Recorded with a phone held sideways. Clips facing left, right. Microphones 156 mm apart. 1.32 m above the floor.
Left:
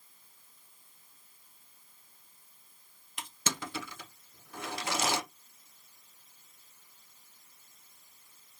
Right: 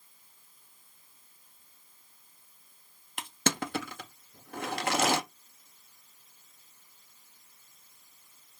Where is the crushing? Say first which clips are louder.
Right 7 dB; 60° right (ahead or behind), 0.6 m.